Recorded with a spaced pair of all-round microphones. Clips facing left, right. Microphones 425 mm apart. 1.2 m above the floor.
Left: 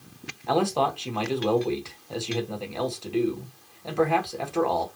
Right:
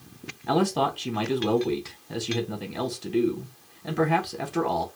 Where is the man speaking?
35° right (ahead or behind), 1.1 m.